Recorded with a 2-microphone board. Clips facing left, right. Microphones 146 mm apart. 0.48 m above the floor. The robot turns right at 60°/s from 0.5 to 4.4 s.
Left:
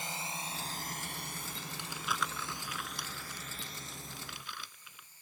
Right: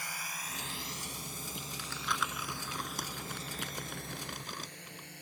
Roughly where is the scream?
I don't hear a scream.